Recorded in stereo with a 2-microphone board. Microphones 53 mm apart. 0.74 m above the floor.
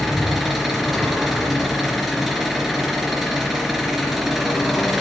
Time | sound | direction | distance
0.0 | an engine running | 5° right (ahead or behind) | 3 m